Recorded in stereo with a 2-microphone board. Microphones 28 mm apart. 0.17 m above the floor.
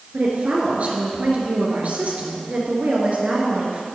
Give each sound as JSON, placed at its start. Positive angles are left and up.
{"t": 0.1, "sound": "a woman speaking", "side_deg": -55, "distance_m": 2.5}